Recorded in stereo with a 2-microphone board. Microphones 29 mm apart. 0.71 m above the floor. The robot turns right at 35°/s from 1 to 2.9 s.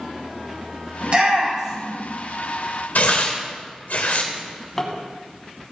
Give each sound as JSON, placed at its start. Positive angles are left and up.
{"t": 1.0, "sound": "a shout", "side_deg": -45, "distance_m": 4.5}
{"t": 3.0, "sound": "tearing paper", "side_deg": 75, "distance_m": 1.7}
{"t": 4.3, "sound": "a drawer", "side_deg": 10, "distance_m": 2.0}